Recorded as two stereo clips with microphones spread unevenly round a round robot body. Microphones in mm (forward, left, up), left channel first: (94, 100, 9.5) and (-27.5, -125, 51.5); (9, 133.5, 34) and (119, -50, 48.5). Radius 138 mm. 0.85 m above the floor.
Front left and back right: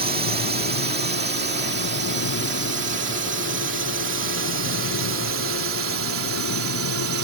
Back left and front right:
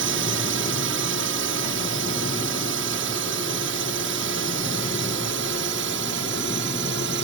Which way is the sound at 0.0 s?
65° right.